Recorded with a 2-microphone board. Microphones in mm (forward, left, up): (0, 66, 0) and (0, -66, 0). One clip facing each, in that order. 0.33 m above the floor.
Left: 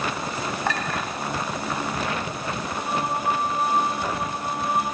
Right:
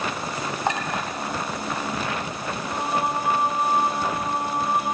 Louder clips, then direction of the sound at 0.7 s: Right 3 dB; 20° right (ahead or behind).